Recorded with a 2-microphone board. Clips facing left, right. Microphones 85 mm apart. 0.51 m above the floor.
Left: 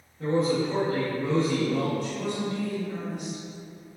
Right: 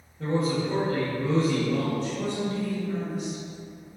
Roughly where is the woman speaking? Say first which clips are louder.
Right 1 dB; right.